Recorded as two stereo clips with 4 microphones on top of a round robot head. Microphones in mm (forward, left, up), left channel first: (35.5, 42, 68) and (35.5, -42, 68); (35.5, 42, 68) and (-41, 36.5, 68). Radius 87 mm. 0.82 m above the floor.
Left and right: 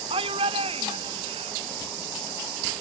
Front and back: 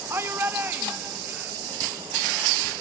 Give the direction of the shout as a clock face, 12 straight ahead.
4 o'clock.